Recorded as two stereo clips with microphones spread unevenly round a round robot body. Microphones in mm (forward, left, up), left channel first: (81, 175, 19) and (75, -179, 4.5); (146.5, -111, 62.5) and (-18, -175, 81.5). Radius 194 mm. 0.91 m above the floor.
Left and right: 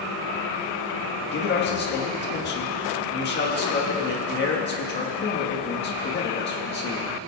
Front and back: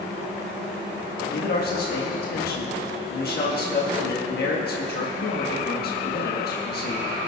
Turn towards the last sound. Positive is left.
turn(degrees=30)